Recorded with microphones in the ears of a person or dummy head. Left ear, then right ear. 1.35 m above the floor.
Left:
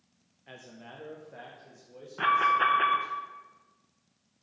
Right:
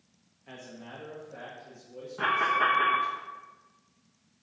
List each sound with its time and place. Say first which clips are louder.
0.5 s a man speaking: right 2 dB; 15° left (ahead or behind), 0.5 m; by 3.2 s 50° left (ahead or behind), 1.8 m
2.2 s an alarm: left 2 dB; 25° left (ahead or behind), 0.6 m